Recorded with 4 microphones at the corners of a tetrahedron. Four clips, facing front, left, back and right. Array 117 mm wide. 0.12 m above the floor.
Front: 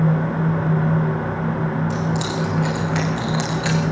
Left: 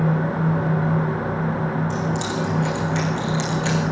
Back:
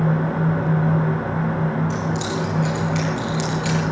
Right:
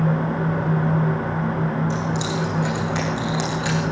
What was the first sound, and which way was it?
Keys jangling, 30° right.